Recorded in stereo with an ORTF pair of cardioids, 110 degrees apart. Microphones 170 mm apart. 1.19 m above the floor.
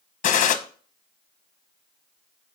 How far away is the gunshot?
About 0.8 m.